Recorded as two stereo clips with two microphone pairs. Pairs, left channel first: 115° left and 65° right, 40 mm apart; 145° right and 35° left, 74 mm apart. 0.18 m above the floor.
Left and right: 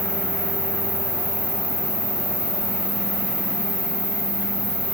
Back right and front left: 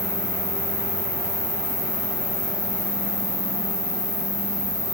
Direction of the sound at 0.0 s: 10° right.